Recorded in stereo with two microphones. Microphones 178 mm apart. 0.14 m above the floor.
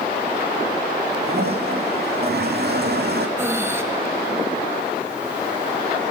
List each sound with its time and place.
1.2 s a toilet flushing: 65° right (ahead or behind), 2.5 m
3.4 s breathing: 15° right (ahead or behind), 1.6 m